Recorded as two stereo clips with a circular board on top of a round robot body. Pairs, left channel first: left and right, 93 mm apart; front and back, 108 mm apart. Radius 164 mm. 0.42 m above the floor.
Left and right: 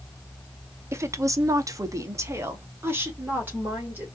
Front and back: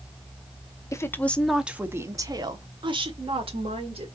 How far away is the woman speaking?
About 1.1 m.